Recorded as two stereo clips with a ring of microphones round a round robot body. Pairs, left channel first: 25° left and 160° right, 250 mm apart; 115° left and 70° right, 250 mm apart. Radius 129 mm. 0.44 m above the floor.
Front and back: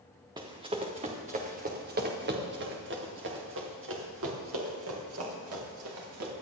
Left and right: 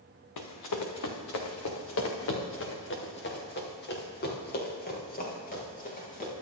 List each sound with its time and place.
0.4 s running footsteps: 130° left, 1.9 m; by 6.3 s 175° left, 4 m